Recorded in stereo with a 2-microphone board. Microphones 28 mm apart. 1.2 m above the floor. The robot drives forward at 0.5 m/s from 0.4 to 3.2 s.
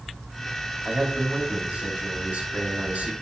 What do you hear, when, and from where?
0.8 s a man speaking: 60° right (ahead or behind), 3 m; by 3.1 s 80° right, 2.5 m